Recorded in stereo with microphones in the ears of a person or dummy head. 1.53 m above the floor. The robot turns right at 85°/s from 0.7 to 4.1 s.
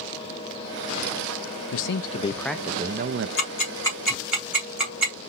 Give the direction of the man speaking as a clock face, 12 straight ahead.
8 o'clock.